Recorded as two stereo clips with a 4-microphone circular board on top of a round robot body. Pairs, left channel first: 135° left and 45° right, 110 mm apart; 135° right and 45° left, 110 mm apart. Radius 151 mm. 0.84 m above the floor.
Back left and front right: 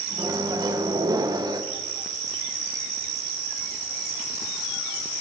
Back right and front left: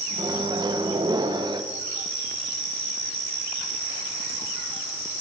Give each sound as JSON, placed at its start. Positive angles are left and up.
{"t": 0.2, "sound": "a microwave", "azimuth_deg": 0, "distance_m": 0.7}